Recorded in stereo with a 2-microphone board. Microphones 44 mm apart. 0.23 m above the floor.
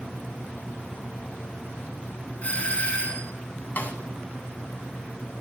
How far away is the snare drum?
About 1.9 m.